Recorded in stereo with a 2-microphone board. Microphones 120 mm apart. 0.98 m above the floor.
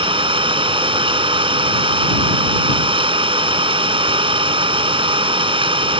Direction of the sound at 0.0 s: 45° right (ahead or behind).